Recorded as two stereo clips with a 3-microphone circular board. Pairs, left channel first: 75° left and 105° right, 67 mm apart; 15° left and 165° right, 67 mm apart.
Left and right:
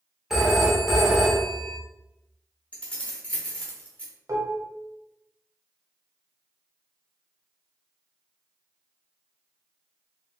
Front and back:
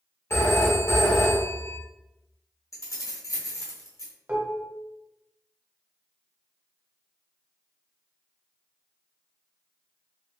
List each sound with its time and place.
0.3 s a phone ringing: 20° right, 0.9 m
2.7 s keys jangling: 10° left, 0.9 m
4.3 s dishes clattering: 100° right, 0.8 m